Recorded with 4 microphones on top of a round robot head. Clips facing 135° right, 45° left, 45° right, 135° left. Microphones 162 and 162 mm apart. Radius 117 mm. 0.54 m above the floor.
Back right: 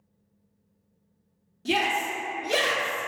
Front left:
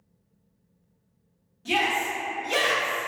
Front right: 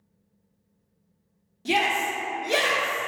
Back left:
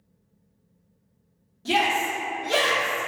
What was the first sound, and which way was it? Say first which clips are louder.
A shout: even, back left 1 dB; 110° right.